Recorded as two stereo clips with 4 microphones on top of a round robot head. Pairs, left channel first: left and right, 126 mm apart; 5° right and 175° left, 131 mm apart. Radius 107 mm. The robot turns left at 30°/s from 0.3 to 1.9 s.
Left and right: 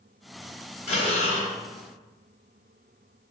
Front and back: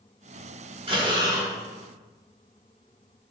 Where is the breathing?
125° left, 1.5 m; by 1.5 s 110° left, 1.5 m.